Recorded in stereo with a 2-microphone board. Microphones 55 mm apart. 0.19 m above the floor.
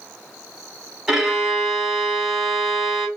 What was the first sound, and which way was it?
A violin, 10° right (ahead or behind).